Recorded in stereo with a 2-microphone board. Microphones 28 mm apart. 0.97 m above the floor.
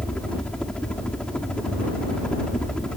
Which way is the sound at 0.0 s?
35° left (ahead or behind).